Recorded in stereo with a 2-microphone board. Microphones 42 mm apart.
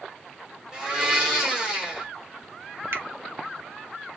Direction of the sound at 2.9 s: 60° right (ahead or behind).